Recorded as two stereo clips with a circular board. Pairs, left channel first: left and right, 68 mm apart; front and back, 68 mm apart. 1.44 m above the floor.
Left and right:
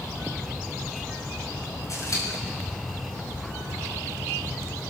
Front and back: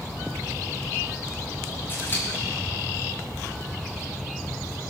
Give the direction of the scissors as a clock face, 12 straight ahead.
10 o'clock.